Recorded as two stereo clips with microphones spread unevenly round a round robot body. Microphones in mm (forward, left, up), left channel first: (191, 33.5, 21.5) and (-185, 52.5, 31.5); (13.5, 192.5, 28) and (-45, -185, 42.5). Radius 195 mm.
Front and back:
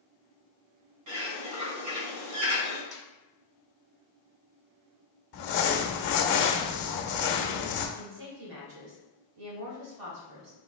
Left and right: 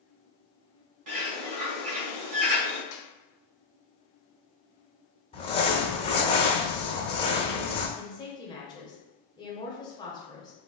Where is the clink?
No clink in this recording.